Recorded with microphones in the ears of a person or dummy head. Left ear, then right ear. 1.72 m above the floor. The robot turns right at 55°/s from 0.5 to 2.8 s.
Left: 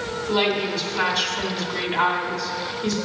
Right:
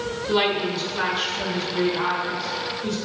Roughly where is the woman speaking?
Ahead.